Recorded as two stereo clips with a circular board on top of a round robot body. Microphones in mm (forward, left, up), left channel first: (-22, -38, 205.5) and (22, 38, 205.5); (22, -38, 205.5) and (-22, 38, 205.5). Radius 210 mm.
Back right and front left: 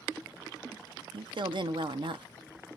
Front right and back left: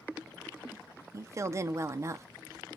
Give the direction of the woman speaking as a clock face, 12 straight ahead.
10 o'clock.